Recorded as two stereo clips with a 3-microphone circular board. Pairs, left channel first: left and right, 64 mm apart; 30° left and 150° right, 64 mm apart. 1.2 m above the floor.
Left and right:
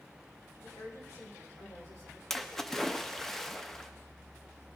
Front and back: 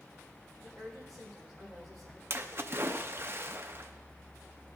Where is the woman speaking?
125° left, 4 m.